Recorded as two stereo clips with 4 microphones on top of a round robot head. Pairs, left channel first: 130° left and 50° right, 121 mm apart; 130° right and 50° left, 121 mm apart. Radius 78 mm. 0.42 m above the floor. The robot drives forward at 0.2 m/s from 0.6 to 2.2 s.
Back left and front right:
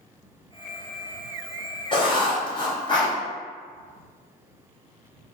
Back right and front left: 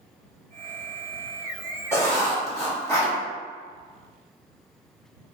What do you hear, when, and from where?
1.9 s writing: 165° left, 1.4 m